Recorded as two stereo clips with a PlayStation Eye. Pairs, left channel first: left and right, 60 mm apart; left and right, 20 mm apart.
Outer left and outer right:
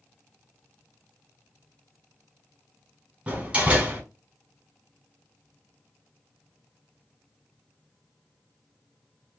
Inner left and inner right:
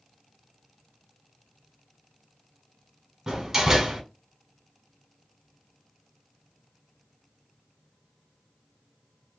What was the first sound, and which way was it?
A door slam, 25° right (ahead or behind).